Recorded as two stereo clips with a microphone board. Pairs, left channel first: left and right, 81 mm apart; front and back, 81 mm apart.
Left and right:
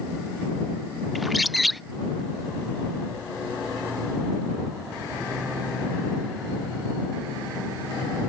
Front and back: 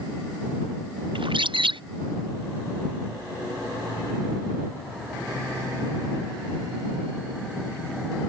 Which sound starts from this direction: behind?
A bird, at 1.1 s.